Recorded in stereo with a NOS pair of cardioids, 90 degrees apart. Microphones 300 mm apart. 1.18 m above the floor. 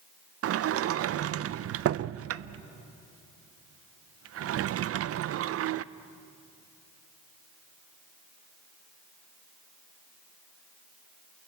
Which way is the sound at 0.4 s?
50° right.